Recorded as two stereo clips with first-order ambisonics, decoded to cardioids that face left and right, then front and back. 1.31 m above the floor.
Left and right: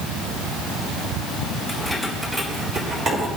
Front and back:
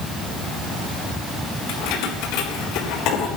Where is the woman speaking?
No woman speaking in this recording.